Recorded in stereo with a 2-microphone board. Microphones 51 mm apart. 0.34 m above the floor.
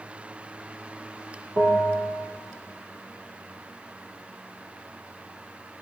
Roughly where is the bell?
Right.